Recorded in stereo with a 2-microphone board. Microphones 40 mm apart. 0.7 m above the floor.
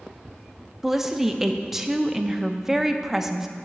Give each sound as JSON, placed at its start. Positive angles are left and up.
{"t": 0.8, "sound": "a woman speaking", "side_deg": -10, "distance_m": 0.6}